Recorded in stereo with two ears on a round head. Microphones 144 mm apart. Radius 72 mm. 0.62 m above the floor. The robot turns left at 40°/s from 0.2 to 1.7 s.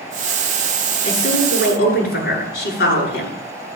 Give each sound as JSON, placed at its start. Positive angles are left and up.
{"t": 1.0, "sound": "a woman speaking", "side_deg": 45, "distance_m": 9.5}